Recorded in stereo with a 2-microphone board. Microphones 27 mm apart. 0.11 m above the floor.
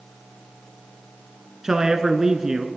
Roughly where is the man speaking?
Right.